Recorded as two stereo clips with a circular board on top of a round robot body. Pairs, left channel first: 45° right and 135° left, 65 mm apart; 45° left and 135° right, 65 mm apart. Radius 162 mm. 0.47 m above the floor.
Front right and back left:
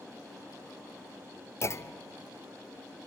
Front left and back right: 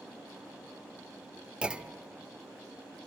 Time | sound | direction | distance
1.6 | a clunk | 65° right | 1.0 m